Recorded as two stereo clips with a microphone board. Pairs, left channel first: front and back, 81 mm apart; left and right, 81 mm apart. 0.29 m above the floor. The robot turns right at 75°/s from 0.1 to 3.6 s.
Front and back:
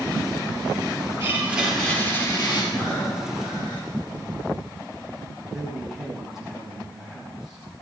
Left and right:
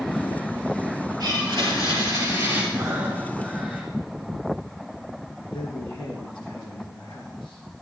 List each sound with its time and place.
1.2 s a blender: 130° right, 6 m; by 2.6 s 20° right, 6 m
2.7 s breathing: 50° right, 5 m; by 3.9 s 15° left, 5 m
5.5 s a man speaking: 95° left, 4 m